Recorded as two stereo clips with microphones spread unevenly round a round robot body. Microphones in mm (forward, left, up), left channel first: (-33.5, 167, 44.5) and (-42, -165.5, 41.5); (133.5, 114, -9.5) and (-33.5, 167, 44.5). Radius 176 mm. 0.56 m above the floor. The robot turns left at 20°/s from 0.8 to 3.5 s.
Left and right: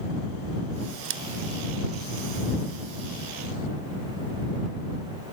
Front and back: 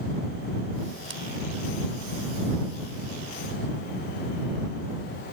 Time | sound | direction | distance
1.1 | scissors | 145° right | ?